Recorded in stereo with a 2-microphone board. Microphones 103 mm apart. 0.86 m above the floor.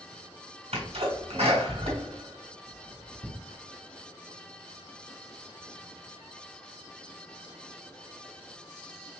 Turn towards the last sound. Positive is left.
turn(degrees=-75)  # may be behind; listen again after turning